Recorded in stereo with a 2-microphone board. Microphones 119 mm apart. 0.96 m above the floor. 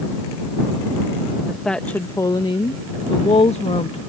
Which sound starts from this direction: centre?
A woman speaking, at 1.5 s.